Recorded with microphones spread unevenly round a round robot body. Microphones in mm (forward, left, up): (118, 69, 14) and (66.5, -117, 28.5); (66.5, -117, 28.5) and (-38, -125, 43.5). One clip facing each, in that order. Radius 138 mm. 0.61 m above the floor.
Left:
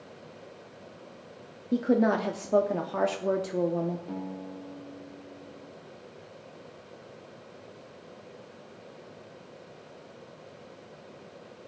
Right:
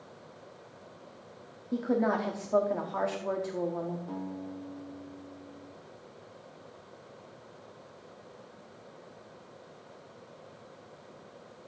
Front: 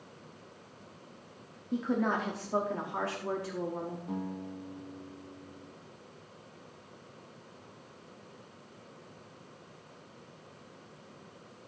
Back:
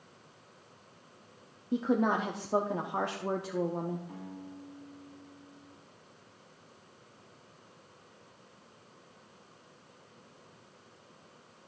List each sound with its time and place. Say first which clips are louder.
1.7 s a woman speaking: left 4 dB, back 2 dB; 110° left, 0.7 m
4.1 s a guitar: left 1 dB, front 7 dB; straight ahead, 3 m